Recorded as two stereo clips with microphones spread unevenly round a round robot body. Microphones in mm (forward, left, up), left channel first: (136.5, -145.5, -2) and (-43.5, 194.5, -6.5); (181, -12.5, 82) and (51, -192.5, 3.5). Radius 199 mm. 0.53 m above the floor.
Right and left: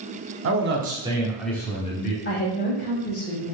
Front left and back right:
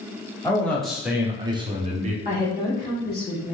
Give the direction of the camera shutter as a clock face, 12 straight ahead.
I don't hear a camera shutter.